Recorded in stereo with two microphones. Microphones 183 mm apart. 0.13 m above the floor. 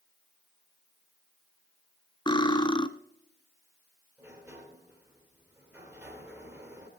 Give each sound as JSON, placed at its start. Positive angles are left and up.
{"t": 2.3, "sound": "cutlery clinking", "side_deg": 25, "distance_m": 0.6}
{"t": 4.2, "sound": "a sliding door", "side_deg": -5, "distance_m": 3.0}